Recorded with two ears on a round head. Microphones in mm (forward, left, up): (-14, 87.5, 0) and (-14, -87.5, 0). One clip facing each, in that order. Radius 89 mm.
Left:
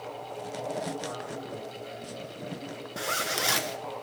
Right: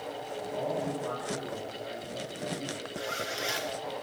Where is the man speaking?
80° right, 5 m.